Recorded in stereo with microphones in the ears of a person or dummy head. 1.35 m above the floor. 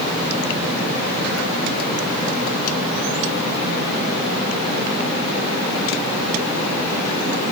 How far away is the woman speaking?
I don't hear a woman speaking.